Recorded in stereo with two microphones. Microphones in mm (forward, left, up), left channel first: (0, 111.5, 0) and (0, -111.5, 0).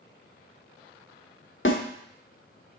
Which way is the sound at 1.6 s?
60° left (ahead or behind).